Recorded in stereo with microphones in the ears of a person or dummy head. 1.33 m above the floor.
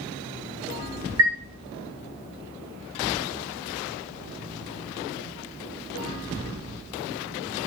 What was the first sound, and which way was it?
A chime, 80° right.